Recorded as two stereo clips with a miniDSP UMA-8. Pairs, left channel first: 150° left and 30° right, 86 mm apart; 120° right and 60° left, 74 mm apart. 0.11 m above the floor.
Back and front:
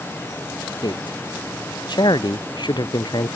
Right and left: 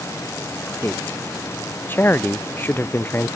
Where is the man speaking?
Straight behind.